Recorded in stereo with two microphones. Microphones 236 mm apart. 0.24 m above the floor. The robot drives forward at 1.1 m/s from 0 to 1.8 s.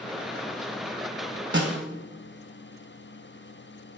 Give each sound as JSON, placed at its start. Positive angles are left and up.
{"t": 1.5, "sound": "a snare drum", "side_deg": -45, "distance_m": 1.0}